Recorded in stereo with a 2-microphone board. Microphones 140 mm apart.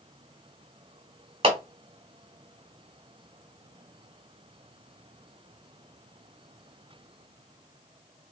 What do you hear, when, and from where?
1.4 s a clap: 40° right (ahead or behind), 0.9 m